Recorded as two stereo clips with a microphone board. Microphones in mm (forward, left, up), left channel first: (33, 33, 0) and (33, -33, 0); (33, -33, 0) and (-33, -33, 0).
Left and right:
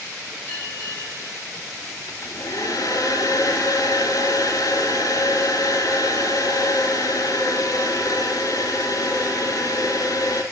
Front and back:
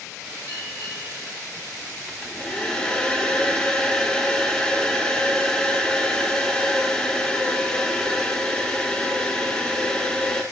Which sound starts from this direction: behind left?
A bell, at 0.5 s.